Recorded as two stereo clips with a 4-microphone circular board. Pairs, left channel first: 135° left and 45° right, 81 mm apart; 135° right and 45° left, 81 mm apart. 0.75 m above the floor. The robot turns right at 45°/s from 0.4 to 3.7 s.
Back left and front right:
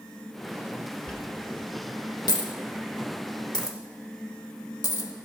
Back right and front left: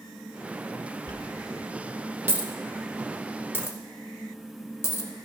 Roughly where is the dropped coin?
Ahead left.